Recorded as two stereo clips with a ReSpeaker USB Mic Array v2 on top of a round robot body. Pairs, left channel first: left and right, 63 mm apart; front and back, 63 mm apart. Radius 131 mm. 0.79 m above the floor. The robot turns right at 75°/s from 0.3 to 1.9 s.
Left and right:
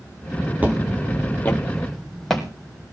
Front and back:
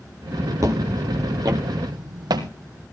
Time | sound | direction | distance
0.6 | footsteps | 155° right | 0.8 m